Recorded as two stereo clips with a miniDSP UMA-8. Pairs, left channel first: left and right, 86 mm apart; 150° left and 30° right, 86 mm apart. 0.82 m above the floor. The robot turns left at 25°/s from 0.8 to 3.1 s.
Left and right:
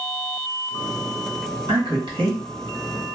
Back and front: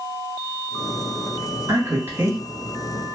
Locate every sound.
1.7 s a man speaking: 85° right, 1.6 m; by 2.4 s 105° right, 1.6 m